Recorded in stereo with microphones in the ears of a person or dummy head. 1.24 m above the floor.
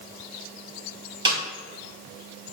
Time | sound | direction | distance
1.2 | a snare drum | 30° right (ahead or behind) | 2.5 m